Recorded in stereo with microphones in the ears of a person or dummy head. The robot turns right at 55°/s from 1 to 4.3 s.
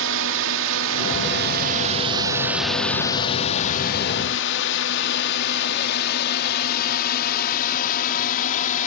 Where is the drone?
70° right (ahead or behind); by 8.9 s 55° left (ahead or behind).